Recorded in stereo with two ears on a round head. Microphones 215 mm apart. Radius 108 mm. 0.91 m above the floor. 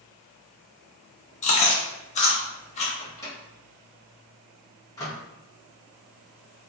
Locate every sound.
1.4 s chewing: 30° left (ahead or behind), 0.6 m
3.0 s a microwave: 15° left (ahead or behind), 0.9 m